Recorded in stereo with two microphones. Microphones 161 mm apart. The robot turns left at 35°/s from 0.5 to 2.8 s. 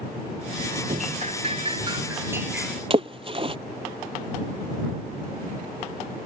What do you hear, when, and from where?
0.9 s dripping: 110° right; by 2.8 s straight behind
2.9 s a splash: 35° right (ahead or behind)